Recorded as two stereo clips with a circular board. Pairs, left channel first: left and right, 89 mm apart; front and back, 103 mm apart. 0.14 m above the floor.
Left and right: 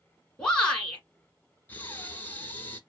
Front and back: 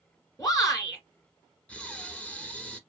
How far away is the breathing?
About 0.9 m.